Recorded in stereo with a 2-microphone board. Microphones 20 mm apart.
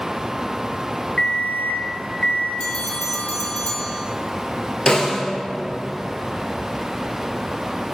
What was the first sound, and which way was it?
An alarm clock, 45° left (ahead or behind).